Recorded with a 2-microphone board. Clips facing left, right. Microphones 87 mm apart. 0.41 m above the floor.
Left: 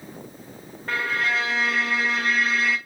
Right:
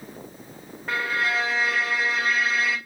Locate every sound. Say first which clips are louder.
0.9 s a violin: even; 5° right (ahead or behind), 0.9 m